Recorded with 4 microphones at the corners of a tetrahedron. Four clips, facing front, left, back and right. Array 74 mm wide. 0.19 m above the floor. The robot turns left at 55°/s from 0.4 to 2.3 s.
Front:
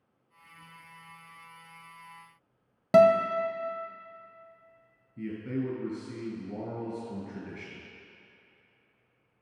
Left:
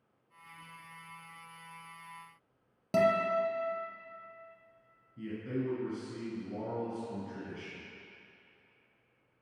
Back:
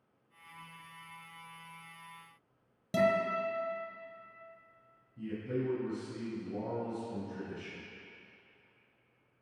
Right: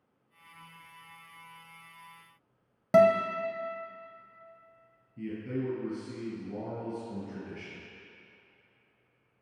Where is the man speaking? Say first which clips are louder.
Right 2 dB, front 3 dB; straight ahead, 3 m.